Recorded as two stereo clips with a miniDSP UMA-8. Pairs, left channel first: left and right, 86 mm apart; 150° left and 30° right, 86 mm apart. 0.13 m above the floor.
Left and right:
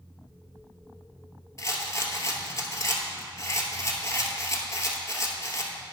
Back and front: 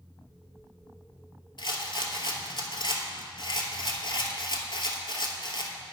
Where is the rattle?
140° left, 0.9 m.